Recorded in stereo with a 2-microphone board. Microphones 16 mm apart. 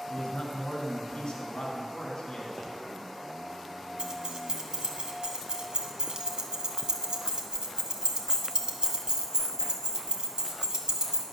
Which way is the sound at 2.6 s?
35° left (ahead or behind).